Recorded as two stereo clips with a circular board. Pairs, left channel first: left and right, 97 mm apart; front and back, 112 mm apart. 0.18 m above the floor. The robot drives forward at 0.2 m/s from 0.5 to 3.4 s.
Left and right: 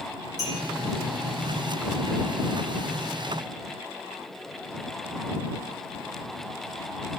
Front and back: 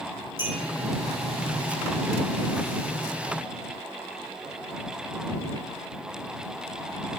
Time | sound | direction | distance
0.4 | a clink | 115° right | 1.3 m